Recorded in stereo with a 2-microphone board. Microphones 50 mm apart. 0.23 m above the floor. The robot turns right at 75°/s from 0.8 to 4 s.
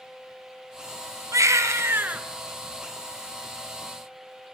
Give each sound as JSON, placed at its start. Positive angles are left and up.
{"t": 1.3, "sound": "a baby crying", "azimuth_deg": -100, "distance_m": 1.3}